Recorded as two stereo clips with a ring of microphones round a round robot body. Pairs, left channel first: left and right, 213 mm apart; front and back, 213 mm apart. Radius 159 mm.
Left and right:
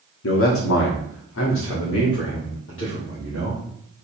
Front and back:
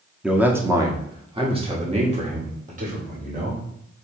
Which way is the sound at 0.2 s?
95° left.